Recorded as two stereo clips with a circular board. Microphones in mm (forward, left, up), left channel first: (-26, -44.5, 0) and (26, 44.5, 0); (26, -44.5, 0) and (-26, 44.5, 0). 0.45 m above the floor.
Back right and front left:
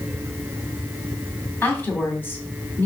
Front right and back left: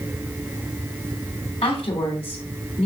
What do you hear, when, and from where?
1.6 s a woman speaking: 50° right, 3 m